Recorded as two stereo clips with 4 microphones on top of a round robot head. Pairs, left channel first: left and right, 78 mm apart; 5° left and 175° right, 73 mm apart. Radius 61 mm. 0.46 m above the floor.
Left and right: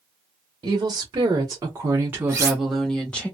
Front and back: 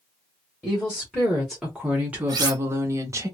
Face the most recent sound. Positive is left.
turn(degrees=-145)